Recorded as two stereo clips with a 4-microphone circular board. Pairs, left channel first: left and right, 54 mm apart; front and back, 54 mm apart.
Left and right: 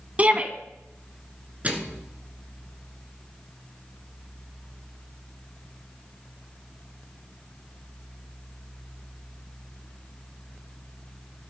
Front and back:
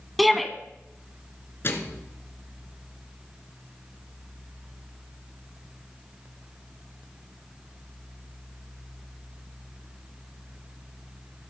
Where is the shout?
90° right, 1.1 m.